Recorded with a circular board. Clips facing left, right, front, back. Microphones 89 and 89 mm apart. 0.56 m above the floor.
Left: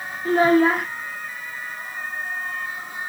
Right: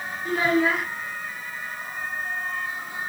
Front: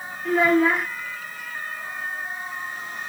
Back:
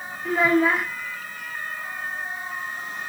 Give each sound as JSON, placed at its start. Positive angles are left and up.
{"t": 0.2, "sound": "a child speaking", "azimuth_deg": 90, "distance_m": 0.6}